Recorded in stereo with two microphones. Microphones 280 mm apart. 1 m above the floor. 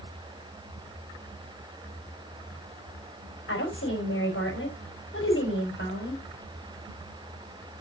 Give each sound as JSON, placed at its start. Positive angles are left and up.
{"t": 3.5, "sound": "a woman speaking", "side_deg": 50, "distance_m": 5.0}